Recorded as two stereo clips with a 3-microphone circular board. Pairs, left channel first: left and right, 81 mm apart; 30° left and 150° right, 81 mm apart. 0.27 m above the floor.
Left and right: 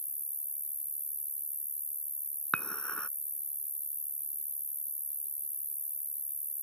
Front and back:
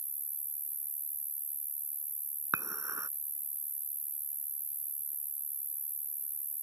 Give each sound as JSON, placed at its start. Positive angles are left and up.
{"t": 0.0, "sound": "an insect", "azimuth_deg": 90}
{"t": 2.5, "sound": "dishes clattering", "azimuth_deg": 165}